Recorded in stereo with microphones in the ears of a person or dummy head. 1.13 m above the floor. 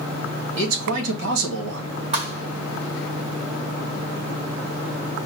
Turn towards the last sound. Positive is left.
turn(degrees=-40)  # may be behind; listen again after turning